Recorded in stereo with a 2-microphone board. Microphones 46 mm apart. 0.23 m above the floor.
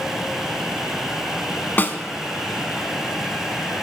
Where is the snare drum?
45° left (ahead or behind), 0.7 m.